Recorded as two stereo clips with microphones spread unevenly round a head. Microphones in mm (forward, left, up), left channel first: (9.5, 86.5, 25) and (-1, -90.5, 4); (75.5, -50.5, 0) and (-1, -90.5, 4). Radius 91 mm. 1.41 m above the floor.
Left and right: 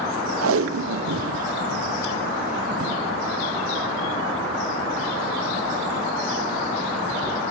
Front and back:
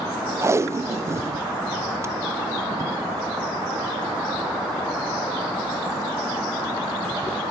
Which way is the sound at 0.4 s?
90° right.